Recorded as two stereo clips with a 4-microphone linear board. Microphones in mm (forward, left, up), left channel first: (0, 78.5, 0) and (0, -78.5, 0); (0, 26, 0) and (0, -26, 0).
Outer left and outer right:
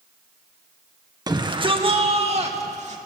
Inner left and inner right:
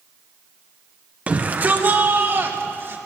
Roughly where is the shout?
Right.